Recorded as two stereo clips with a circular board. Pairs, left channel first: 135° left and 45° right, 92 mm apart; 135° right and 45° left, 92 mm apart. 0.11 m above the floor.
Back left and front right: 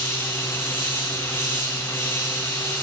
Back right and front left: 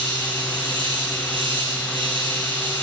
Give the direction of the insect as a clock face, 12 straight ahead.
10 o'clock.